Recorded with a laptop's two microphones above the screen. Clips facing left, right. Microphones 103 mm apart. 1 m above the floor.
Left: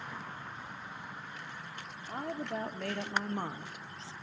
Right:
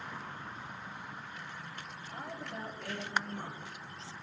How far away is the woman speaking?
About 3.5 m.